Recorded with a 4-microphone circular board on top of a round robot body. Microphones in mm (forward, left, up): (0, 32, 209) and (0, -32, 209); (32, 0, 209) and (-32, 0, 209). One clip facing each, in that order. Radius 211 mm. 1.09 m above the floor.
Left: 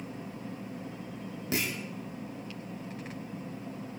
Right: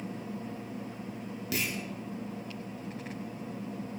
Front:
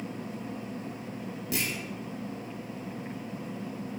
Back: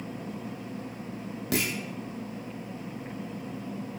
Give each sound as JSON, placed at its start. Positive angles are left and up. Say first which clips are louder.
{"t": 1.5, "sound": "a clunk", "louder": "left 2 dB, back 4 dB", "azimuth_deg": 150, "distance_m": 0.7}